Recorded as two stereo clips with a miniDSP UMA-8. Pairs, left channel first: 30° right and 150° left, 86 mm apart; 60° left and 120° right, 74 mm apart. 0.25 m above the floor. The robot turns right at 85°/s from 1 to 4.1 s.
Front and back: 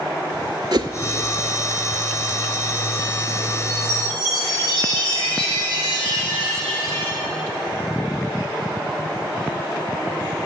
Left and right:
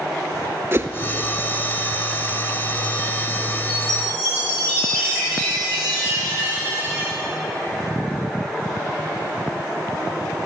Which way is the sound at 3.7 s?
85° right.